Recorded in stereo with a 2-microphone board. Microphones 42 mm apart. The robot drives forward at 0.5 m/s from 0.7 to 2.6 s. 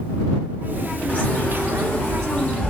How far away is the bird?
About 0.9 m.